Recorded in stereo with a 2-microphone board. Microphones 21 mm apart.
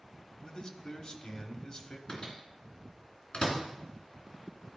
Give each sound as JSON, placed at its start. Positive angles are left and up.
{"t": 0.4, "sound": "a man speaking", "side_deg": 40, "distance_m": 1.2}
{"t": 2.1, "sound": "a microwave", "side_deg": 55, "distance_m": 2.5}